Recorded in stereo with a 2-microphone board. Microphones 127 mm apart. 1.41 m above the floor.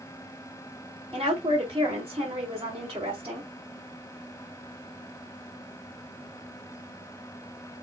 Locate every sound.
1.1 s a woman speaking: 45° right (ahead or behind), 3.5 m